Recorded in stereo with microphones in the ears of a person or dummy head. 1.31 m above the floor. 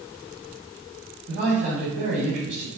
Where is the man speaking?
50° right (ahead or behind), 3 m.